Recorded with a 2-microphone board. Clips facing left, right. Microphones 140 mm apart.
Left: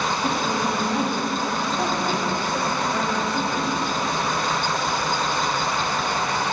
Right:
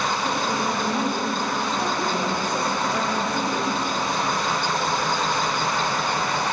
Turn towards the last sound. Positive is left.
turn(degrees=-20)  # may be behind; listen again after turning